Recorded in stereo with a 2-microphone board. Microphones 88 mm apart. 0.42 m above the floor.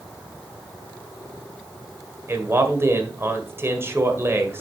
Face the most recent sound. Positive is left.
turn(degrees=-30)  # may be behind; listen again after turning